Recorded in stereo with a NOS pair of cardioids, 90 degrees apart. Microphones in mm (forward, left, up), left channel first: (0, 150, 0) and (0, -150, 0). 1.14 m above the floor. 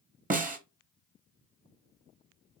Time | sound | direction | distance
0.3 | a snare drum | 30° right | 1.2 m